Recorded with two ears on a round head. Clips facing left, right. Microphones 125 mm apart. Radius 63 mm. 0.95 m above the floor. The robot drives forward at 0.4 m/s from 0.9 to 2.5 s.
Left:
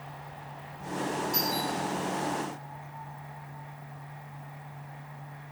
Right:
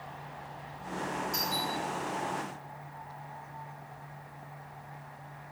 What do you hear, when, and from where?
1.3 s a doorbell: centre (ahead or behind), 3 m